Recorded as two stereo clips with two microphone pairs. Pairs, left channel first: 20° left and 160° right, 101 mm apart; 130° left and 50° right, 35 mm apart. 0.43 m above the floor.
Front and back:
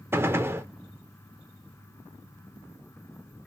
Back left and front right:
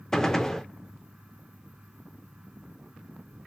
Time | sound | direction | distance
0.1 | a gunshot | 165° right | 0.5 m